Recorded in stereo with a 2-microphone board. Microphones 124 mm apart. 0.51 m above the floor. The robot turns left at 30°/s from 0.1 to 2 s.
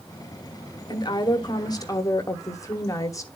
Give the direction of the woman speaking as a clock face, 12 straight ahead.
9 o'clock.